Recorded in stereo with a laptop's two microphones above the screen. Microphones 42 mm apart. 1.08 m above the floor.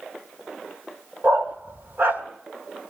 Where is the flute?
I don't hear a flute.